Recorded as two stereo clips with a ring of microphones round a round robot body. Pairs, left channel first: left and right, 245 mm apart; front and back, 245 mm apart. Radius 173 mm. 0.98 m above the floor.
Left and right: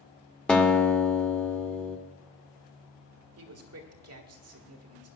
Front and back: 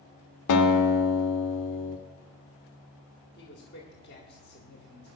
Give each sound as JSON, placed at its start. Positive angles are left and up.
{"t": 0.5, "sound": "a guitar", "azimuth_deg": 5, "distance_m": 1.4}
{"t": 3.4, "sound": "a man speaking", "azimuth_deg": -65, "distance_m": 1.8}